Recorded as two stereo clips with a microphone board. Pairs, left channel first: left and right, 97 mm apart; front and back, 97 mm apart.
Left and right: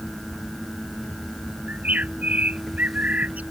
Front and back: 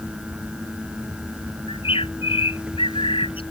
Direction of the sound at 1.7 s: 15° right.